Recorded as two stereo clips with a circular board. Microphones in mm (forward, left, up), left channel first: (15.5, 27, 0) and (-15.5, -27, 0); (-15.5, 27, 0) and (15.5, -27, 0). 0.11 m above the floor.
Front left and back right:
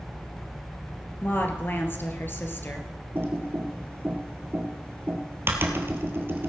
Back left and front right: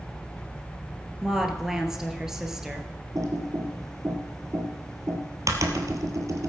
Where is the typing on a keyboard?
70° right, 1.7 m.